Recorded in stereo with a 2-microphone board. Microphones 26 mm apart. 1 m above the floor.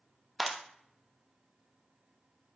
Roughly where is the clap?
Centre.